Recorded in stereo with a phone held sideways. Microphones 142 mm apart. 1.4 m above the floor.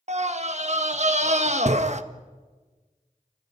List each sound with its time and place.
0.1 s a scream: 55° right (ahead or behind), 1.4 m